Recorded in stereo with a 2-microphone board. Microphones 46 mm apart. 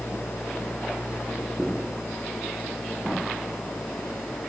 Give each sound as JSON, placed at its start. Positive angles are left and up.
{"t": 0.0, "sound": "an engine running", "side_deg": 45}